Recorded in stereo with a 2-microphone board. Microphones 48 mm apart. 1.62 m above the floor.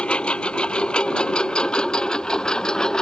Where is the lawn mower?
20° left (ahead or behind); by 3.0 s 15° left (ahead or behind).